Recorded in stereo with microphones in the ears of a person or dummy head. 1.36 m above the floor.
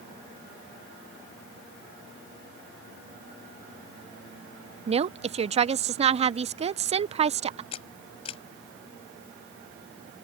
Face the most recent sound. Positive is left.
turn(degrees=35)  # may be behind; listen again after turning